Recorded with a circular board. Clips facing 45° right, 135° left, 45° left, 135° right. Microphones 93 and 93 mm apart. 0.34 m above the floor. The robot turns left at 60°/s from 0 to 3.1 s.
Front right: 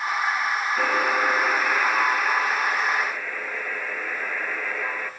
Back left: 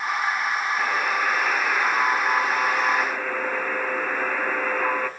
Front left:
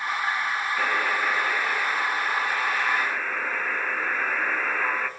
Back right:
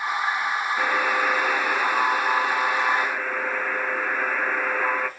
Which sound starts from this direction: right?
A buzzer, at 0.8 s.